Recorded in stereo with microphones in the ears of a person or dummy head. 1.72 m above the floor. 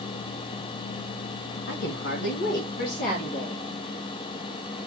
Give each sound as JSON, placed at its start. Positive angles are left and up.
{"t": 1.7, "sound": "a woman speaking", "side_deg": 70, "distance_m": 1.9}